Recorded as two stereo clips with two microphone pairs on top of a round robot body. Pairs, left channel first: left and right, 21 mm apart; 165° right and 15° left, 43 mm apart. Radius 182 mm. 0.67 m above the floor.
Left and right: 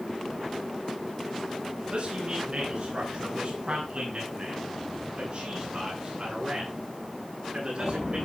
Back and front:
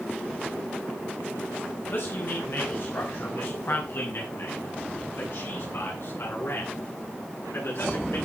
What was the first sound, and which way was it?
A man speaking, 135° right.